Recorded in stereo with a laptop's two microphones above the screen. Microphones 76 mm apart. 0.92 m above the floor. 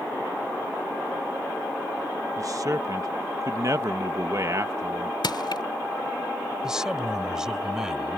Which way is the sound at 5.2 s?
75° left (ahead or behind).